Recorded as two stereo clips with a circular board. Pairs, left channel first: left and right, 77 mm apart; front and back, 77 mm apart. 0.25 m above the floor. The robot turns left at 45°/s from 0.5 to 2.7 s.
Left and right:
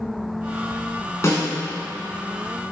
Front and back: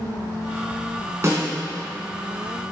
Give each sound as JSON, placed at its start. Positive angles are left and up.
{"t": 1.2, "sound": "a snare drum", "azimuth_deg": 135, "distance_m": 1.9}